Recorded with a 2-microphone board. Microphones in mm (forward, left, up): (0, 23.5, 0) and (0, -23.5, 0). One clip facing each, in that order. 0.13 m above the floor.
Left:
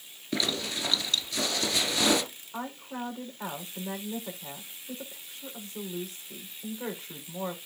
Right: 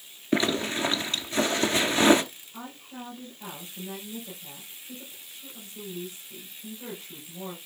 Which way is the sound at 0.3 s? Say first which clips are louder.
Right 6 dB; 30° right (ahead or behind).